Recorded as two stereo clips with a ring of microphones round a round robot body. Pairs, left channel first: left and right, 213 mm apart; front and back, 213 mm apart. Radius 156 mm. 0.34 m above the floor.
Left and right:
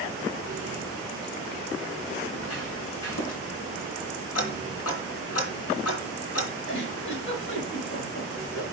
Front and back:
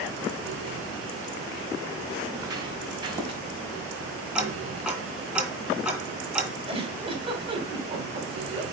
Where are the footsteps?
105° left, 5.5 m; by 3.4 s 115° left, 4.5 m.